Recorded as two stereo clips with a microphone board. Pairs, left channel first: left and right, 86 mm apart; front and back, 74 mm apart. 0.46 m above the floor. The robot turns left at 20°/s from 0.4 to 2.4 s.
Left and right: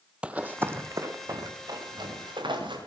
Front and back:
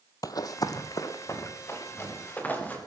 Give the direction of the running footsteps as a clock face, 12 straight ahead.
1 o'clock.